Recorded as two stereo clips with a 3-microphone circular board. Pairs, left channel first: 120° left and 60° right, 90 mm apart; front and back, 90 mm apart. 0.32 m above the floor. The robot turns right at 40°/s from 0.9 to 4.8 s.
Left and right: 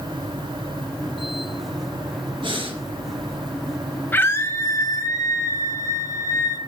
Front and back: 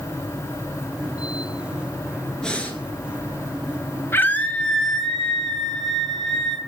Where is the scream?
55° left, 1.8 m; by 6.6 s 85° left, 1.8 m.